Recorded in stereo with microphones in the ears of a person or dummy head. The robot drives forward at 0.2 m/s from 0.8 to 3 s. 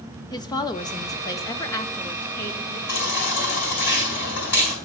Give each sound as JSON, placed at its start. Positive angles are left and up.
{"t": 0.3, "sound": "a woman speaking", "side_deg": 20, "distance_m": 0.6}
{"t": 2.9, "sound": "a baby crying", "side_deg": 60, "distance_m": 3.5}